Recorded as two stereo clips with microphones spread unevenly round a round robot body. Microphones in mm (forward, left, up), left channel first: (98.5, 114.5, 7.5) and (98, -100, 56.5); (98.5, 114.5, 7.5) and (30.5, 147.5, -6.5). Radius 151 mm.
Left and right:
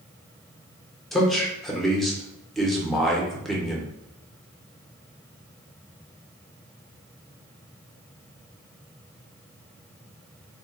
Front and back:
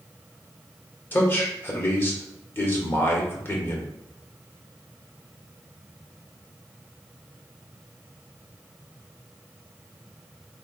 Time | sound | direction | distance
1.1 | a man speaking | 30° left | 0.9 m